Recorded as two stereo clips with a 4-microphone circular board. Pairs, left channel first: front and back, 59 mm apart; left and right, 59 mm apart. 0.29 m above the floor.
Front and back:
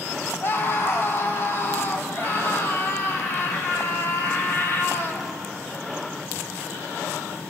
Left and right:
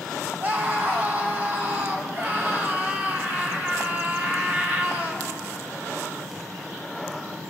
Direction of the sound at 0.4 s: 35° right.